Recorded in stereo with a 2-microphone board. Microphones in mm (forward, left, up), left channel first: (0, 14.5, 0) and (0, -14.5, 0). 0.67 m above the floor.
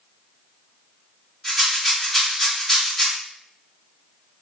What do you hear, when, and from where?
1.4 s a rattle: 15° left (ahead or behind), 1.0 m